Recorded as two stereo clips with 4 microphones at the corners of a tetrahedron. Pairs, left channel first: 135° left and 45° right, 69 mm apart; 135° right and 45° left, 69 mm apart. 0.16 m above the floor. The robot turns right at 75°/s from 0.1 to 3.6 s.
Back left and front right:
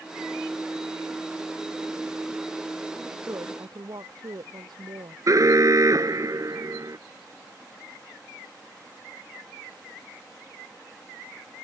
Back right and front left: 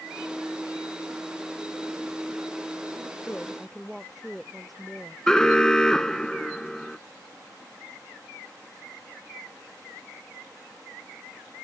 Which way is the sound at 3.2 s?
75° right.